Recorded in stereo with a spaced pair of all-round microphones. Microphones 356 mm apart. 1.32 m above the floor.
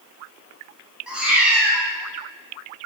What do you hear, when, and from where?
1.1 s a cat meowing: centre (ahead or behind), 0.5 m